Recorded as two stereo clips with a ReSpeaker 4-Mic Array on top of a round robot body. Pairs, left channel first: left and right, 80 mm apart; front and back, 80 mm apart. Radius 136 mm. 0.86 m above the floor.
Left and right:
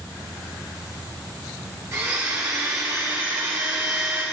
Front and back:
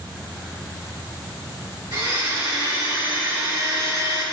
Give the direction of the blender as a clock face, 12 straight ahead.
5 o'clock.